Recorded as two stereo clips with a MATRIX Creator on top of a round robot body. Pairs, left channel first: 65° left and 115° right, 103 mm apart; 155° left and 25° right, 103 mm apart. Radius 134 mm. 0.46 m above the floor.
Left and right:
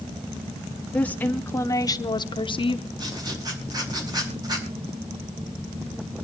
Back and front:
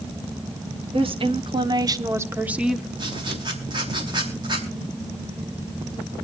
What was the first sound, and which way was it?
A woman speaking, 10° right.